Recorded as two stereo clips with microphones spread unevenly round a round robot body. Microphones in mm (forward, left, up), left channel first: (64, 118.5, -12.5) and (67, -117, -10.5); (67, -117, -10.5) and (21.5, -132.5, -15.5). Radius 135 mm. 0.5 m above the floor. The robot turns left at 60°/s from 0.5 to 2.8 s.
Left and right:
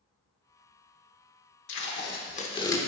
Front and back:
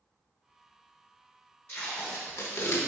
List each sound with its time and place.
1.7 s tape being pulled: 80° left, 0.8 m; by 2.8 s 15° left, 0.8 m